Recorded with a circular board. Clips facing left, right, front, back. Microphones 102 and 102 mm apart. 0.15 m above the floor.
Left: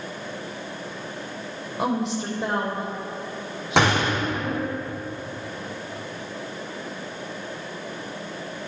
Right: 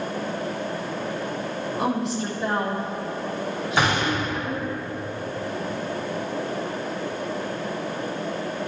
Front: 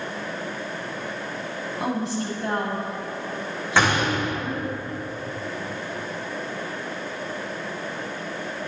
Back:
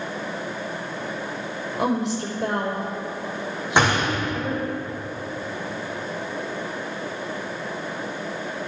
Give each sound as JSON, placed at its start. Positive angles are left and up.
{"t": 1.8, "sound": "a woman speaking", "azimuth_deg": 160, "distance_m": 5.0}
{"t": 3.8, "sound": "a gunshot", "azimuth_deg": 110, "distance_m": 4.0}